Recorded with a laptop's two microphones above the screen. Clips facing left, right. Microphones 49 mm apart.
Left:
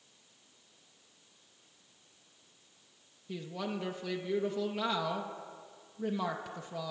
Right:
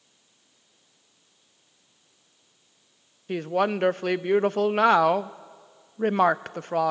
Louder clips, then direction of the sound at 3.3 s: Right 14 dB; 60° right (ahead or behind).